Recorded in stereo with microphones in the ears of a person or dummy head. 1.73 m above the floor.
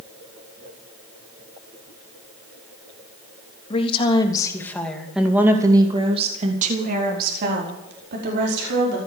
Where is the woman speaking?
35° left (ahead or behind), 3.5 m; by 9.0 s 70° right (ahead or behind), 6 m.